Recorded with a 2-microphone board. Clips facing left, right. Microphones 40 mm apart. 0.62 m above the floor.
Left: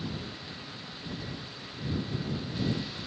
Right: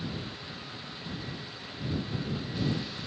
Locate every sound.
Only background noise.